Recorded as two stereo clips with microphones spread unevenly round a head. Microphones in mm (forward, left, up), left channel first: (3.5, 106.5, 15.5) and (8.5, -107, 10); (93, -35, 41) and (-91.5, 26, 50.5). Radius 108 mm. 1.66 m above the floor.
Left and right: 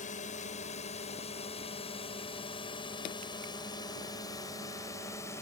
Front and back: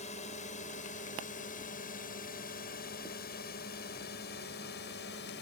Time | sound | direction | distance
0.0 | a drone | 35° left | ?